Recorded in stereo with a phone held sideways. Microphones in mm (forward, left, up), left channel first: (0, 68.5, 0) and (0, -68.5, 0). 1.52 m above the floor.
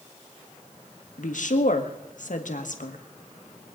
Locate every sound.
1.2 s a woman speaking: 70° left (ahead or behind), 1.5 m